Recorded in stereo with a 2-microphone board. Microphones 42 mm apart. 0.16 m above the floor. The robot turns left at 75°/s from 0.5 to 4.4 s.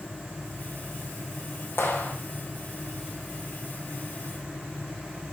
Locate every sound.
1.8 s a clap: 70° left (ahead or behind), 3.5 m; by 2.1 s 45° left (ahead or behind), 3.5 m